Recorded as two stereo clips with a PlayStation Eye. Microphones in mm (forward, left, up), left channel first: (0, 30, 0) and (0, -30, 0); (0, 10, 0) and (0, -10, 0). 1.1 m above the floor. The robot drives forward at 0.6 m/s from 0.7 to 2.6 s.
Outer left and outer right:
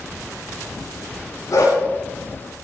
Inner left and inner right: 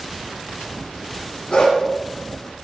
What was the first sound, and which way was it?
A dog barking, 65° left (ahead or behind).